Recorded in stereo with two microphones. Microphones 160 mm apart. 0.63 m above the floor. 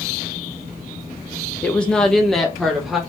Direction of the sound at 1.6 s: 10° left (ahead or behind).